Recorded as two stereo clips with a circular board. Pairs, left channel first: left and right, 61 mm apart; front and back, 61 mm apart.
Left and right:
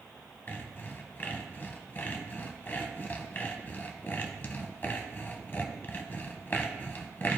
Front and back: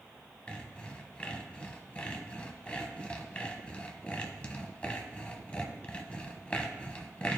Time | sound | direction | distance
0.5 | sawing | 60° left | 0.8 m